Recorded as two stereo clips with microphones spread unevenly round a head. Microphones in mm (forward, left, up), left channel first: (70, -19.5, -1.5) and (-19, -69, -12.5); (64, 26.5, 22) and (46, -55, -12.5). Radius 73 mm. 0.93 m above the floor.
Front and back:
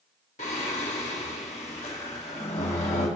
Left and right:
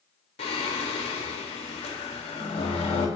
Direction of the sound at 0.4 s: 75° left.